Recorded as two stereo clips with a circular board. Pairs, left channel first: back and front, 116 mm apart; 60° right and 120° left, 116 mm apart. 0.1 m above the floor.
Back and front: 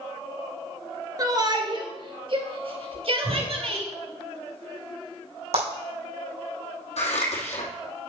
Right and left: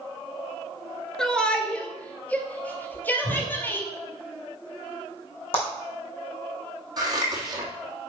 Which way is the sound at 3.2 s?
45° right.